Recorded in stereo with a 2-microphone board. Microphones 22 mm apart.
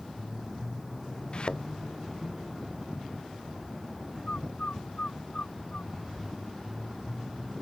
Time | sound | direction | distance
1.3 | a thud | 50° left (ahead or behind) | ?
4.3 | a bird | 65° left (ahead or behind) | ?